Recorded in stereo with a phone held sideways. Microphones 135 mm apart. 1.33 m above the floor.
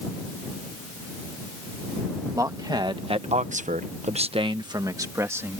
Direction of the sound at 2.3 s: 25° right (ahead or behind).